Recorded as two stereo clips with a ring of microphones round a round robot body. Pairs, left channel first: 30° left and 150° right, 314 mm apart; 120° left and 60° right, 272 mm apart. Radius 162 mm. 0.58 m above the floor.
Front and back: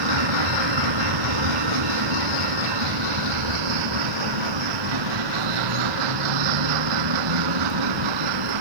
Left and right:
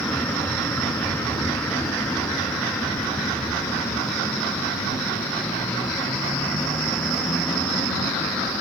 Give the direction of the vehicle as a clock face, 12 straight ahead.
5 o'clock.